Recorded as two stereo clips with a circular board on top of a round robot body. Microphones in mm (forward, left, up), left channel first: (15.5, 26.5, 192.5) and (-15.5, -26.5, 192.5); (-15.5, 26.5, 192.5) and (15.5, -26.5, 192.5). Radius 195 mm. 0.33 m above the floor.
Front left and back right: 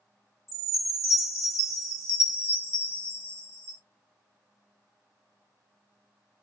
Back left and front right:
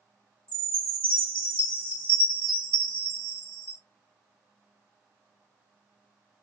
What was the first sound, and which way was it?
A chime, 55° left.